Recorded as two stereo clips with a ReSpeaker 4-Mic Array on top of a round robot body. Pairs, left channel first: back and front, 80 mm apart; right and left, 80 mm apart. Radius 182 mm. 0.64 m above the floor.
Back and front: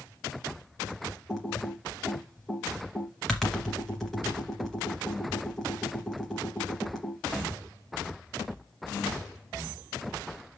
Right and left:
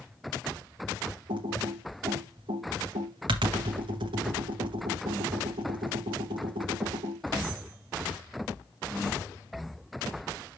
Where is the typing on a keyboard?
95° left, 0.6 m.